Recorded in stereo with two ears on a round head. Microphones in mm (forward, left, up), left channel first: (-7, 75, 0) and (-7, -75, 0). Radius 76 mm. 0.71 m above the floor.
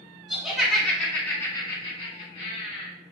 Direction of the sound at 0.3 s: 5° right (ahead or behind).